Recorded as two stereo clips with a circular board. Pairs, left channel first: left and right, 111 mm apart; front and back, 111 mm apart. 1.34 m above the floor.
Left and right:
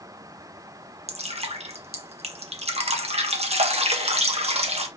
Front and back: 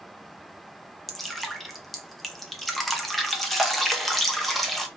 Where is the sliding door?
No sliding door in this recording.